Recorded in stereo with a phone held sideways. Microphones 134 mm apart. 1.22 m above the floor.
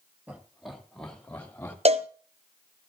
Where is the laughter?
10° right (ahead or behind), 2 m; by 1.8 s 15° left (ahead or behind), 3 m.